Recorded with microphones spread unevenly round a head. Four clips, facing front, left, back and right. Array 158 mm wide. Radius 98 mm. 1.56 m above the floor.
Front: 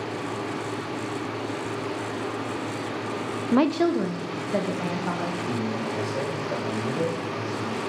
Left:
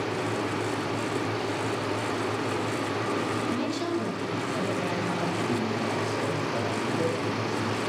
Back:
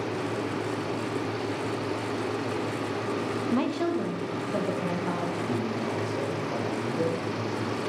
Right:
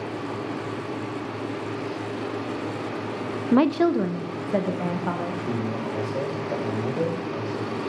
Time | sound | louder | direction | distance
3.5 | a woman speaking | right 9 dB, front 7 dB | 45° right | 0.6 m
5.5 | a man speaking | even, front 1 dB | 45° right | 6.5 m